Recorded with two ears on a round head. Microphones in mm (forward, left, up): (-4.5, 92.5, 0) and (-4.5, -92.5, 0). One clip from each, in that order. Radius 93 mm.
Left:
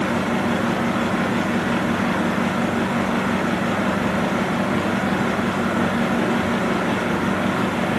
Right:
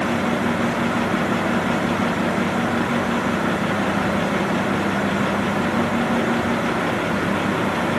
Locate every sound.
Only background noise.